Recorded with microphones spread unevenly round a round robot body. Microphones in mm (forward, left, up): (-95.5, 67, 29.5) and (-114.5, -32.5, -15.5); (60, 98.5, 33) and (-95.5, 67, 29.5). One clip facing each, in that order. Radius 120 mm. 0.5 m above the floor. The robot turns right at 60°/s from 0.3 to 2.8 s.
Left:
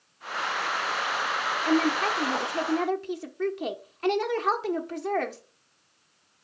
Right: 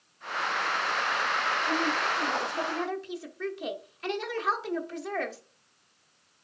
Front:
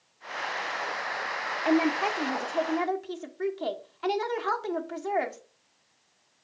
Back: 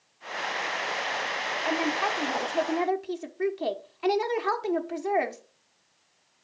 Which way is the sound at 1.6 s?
50° left.